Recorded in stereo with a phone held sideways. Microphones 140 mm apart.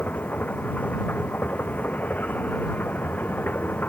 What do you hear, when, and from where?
0.0 s a machine running: 10° left (ahead or behind)